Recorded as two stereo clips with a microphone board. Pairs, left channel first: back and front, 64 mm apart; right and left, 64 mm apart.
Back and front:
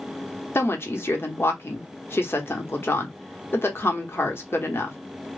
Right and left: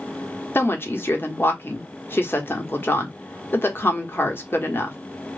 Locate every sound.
0.6 s a woman speaking: 135° right, 1.0 m